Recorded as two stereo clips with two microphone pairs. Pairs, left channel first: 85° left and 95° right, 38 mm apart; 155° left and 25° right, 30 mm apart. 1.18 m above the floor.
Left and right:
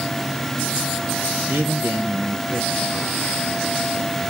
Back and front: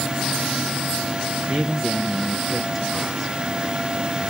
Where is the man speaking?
105° right, 1.2 m.